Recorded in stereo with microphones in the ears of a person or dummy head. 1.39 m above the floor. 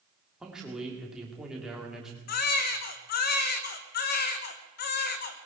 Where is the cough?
No cough in this recording.